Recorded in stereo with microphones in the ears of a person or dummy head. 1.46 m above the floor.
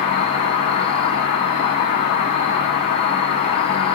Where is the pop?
I don't hear a pop.